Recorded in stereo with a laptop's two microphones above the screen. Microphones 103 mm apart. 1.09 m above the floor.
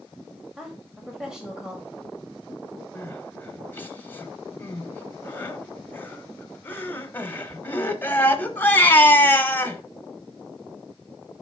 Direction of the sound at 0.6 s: 5° right (ahead or behind).